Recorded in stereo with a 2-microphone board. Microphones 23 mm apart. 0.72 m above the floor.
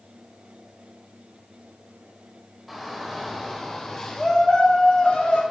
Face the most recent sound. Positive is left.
turn(degrees=60)  # may be behind; listen again after turning